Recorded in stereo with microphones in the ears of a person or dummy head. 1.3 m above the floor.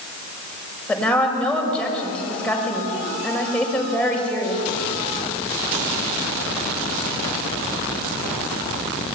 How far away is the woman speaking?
About 6 m.